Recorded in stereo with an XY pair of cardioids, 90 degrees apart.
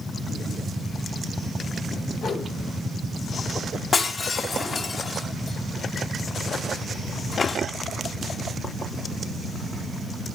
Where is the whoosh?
65° left, 5.5 m.